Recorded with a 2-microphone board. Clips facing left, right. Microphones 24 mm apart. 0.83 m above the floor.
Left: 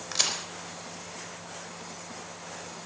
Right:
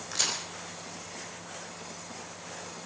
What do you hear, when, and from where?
0.1 s a crack: 25° left (ahead or behind), 3.5 m